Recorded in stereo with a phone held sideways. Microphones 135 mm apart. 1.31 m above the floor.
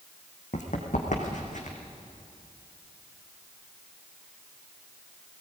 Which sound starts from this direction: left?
Running footsteps, at 0.5 s.